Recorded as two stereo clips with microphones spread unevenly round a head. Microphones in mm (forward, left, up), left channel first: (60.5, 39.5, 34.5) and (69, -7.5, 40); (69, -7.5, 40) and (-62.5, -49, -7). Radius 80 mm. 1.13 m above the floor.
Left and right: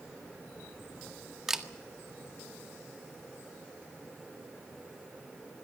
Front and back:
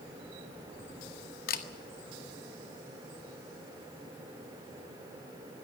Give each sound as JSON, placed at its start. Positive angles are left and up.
{"t": 1.5, "sound": "a camera shutter", "azimuth_deg": 0, "distance_m": 1.7}